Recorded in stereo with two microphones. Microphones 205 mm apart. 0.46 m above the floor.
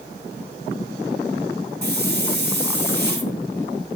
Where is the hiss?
60° right (ahead or behind), 2.5 m.